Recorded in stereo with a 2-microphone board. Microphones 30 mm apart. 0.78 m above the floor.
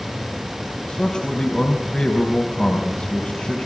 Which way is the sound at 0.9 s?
35° left (ahead or behind).